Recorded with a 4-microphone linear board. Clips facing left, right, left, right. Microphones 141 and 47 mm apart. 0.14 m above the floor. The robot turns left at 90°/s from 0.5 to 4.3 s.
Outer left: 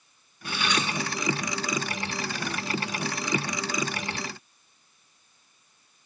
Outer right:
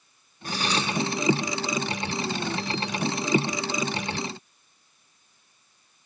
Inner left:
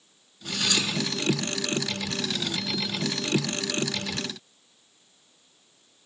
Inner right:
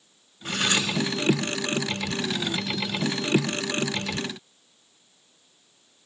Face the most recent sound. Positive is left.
turn(degrees=-85)